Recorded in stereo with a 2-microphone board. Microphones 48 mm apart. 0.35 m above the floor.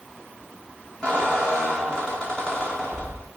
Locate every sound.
1.0 s a squeak: 20° left (ahead or behind), 7 m